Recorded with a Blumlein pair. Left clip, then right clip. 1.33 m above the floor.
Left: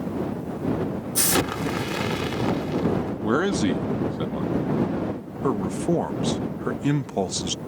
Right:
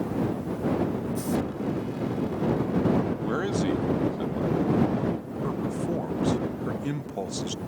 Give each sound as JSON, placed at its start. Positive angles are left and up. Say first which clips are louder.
{"t": 1.1, "sound": "an explosion", "louder": "left 6 dB", "azimuth_deg": 40}
{"t": 3.2, "sound": "a man speaking", "louder": "left 4 dB", "azimuth_deg": 20}
{"t": 5.4, "sound": "a man speaking", "louder": "left 7 dB", "azimuth_deg": 25}